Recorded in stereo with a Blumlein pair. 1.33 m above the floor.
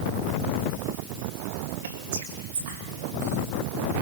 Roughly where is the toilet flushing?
No toilet flushing in this recording.